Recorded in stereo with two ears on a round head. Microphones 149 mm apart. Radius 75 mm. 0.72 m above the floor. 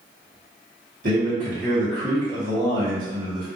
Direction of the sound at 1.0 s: 50° right (ahead or behind).